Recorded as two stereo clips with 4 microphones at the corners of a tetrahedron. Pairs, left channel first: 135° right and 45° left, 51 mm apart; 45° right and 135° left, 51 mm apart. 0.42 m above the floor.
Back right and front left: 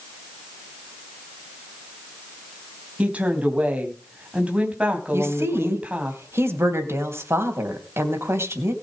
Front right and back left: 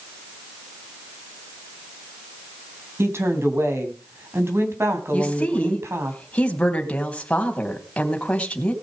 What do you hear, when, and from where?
3.0 s a woman speaking: 110° left, 3.5 m
5.1 s a woman speaking: 20° left, 3 m